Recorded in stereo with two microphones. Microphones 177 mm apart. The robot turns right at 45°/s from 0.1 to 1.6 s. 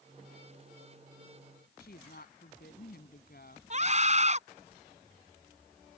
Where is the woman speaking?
60° left (ahead or behind).